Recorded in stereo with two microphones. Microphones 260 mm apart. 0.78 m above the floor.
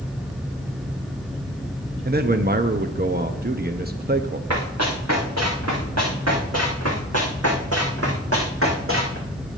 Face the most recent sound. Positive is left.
turn(degrees=-55)  # may be behind; listen again after turning